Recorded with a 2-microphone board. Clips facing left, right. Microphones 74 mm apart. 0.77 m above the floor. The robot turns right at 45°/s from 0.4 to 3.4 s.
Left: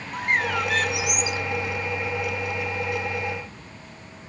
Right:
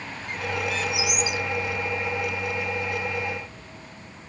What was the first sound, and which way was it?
A bird, 100° left.